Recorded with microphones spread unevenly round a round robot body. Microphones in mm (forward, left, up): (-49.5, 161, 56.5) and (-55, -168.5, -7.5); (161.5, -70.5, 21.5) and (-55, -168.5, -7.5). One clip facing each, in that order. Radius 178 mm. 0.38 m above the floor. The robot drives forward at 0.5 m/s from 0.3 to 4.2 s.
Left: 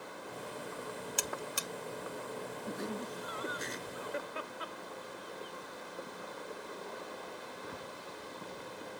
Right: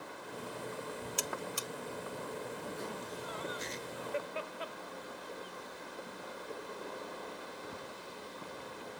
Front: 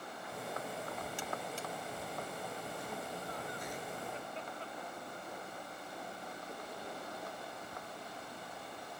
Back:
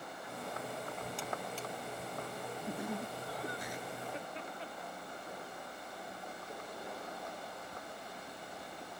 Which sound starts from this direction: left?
A buzzer, at 1.2 s.